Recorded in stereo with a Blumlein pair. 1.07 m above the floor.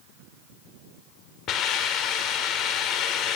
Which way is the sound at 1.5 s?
30° left.